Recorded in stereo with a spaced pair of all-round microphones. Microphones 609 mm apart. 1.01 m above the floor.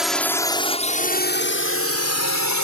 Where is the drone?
Centre (ahead or behind); by 2.6 s 30° left (ahead or behind).